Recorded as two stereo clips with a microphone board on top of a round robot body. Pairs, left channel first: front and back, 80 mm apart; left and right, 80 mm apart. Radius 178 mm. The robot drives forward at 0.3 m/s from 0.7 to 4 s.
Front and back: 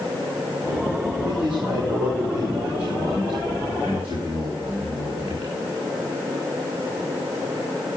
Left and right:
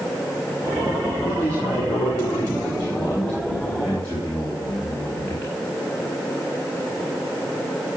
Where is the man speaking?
155° left, 3 m; by 5.5 s 160° left, 4 m.